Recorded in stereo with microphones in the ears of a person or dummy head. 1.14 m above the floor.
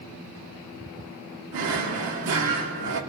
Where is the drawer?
75° right (ahead or behind), 1.4 m.